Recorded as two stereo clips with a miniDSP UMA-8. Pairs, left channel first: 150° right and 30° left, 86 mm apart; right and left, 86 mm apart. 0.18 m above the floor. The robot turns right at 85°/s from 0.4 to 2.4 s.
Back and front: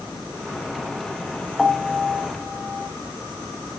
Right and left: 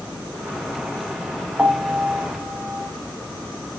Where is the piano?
130° left, 0.7 m; by 2.9 s 165° right, 0.7 m.